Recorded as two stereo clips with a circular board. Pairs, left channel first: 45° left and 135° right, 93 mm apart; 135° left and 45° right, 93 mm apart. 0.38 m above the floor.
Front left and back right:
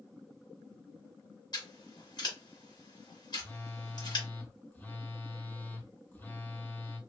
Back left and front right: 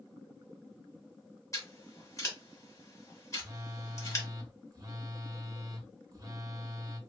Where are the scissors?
80° left, 1.2 m.